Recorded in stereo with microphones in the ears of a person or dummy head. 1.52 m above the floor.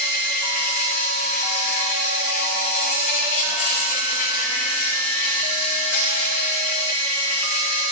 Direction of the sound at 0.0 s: 35° left (ahead or behind).